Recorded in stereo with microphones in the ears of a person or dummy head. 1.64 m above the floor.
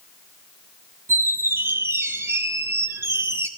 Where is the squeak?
15° right (ahead or behind), 1.3 m.